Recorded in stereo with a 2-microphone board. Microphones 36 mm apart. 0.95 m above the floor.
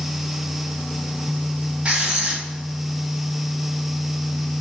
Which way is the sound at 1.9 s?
30° right (ahead or behind).